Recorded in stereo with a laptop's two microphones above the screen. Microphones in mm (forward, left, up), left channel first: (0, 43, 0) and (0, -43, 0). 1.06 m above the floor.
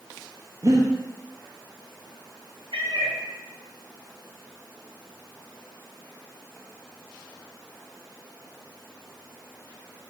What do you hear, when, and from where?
0.6 s breathing: 45° right (ahead or behind), 0.6 m
2.7 s a cat meowing: 70° right (ahead or behind), 1.1 m